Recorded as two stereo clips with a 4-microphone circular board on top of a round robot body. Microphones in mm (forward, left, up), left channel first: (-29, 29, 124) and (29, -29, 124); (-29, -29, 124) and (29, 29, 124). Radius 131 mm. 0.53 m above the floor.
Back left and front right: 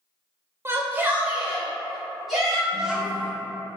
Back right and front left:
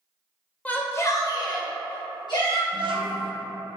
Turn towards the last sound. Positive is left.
turn(degrees=40)